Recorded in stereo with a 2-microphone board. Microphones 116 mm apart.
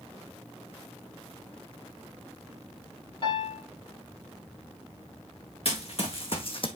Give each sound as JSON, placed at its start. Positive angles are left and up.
{"t": 3.2, "sound": "a piano", "side_deg": 45, "distance_m": 2.5}
{"t": 5.7, "sound": "running footsteps", "side_deg": 55, "distance_m": 2.5}